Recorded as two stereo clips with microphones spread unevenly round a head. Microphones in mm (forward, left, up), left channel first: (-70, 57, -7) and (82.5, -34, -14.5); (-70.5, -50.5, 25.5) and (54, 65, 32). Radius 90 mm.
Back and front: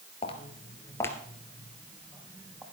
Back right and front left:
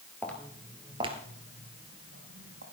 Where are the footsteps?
150° left, 1.7 m; by 2.6 s 50° left, 3.5 m.